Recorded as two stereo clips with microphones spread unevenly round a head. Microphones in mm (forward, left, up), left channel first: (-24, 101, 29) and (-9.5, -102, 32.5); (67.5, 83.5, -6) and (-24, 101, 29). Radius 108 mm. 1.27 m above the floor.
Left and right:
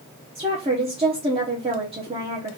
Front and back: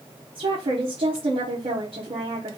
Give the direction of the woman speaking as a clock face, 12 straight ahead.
5 o'clock.